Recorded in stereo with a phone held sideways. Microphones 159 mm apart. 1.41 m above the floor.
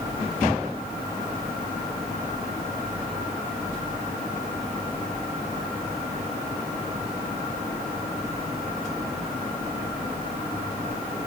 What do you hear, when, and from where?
Only background noise.